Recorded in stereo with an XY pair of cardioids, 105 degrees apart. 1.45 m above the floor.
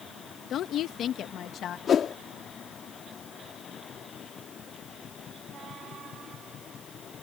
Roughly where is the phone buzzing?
I don't hear a phone buzzing.